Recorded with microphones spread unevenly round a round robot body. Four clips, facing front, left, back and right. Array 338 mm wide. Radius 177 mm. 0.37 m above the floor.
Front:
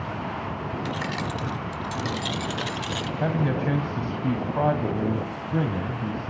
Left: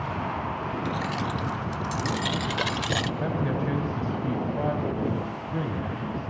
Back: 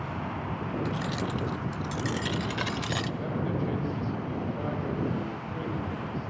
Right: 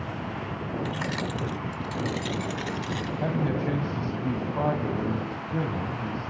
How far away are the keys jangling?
About 0.6 m.